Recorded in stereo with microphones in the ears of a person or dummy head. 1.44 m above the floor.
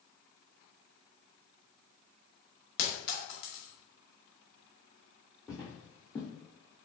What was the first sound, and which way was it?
A clink, 60° left (ahead or behind).